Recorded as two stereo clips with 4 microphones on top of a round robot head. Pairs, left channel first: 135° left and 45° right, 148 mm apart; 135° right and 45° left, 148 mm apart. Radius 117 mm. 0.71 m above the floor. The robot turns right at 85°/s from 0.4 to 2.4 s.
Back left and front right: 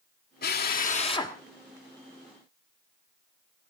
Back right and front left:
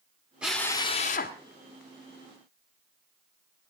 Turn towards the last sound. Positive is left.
turn(degrees=-60)